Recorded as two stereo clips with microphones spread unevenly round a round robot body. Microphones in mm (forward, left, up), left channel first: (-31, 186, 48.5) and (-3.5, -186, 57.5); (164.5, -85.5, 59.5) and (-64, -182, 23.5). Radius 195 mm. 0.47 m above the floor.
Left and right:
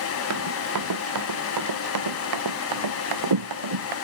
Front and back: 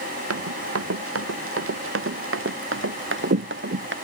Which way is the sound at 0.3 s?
135° right.